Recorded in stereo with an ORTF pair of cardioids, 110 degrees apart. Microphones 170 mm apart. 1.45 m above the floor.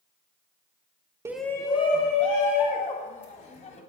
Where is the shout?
15° right, 0.6 m; by 3.8 s 45° left, 4 m.